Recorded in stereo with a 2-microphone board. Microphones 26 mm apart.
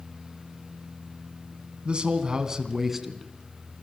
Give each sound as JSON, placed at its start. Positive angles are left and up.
{"t": 1.9, "sound": "a man speaking", "side_deg": -40, "distance_m": 2.5}